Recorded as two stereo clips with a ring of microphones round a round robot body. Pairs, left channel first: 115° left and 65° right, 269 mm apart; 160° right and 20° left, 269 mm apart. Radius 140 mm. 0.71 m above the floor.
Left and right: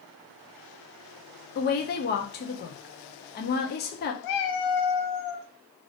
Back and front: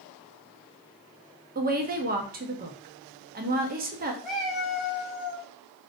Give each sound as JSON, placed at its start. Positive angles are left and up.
{"t": 1.6, "sound": "a woman speaking", "azimuth_deg": 70, "distance_m": 0.7}
{"t": 4.2, "sound": "a cat meowing", "azimuth_deg": 110, "distance_m": 0.6}